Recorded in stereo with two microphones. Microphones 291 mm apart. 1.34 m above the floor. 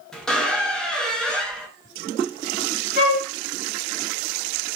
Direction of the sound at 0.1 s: Centre (ahead or behind).